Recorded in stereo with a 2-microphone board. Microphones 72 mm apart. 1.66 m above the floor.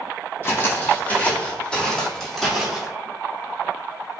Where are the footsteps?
30° left (ahead or behind), 5 m; by 2.9 s 5° right (ahead or behind), 5 m.